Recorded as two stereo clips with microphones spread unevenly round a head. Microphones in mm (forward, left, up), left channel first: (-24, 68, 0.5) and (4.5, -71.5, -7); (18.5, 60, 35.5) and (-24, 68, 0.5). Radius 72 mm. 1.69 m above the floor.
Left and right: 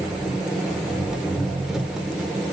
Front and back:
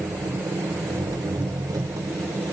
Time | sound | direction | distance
0.0 | an engine running | 165° right | 1.1 m